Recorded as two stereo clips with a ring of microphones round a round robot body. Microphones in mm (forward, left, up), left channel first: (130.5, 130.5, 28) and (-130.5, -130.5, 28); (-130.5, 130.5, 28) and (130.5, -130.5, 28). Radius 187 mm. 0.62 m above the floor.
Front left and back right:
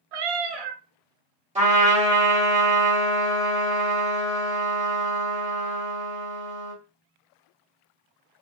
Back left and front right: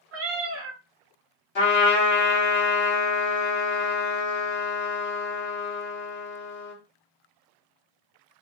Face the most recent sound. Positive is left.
turn(degrees=165)